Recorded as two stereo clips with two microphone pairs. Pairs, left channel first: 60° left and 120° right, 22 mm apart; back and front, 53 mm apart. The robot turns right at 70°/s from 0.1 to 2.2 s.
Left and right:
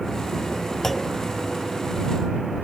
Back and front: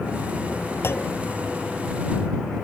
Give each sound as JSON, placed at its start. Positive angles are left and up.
{"t": 0.8, "sound": "a clunk", "azimuth_deg": 135}